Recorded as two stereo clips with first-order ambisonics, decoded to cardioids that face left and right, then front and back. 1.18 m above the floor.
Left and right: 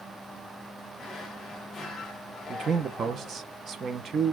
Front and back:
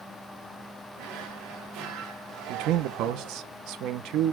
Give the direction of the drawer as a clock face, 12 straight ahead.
7 o'clock.